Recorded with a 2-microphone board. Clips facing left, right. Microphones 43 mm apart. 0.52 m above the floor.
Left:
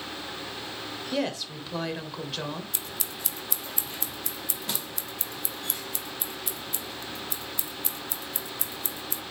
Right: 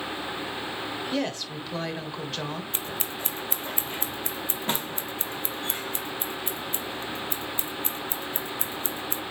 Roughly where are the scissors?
Right.